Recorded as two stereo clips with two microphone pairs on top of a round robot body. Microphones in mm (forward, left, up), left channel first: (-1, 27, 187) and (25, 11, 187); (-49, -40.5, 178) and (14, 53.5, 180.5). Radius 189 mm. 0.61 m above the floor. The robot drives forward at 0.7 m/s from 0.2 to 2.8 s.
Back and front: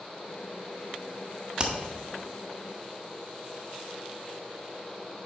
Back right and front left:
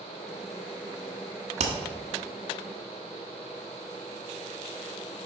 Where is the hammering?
35° left, 0.9 m; by 1.7 s 40° left, 0.8 m.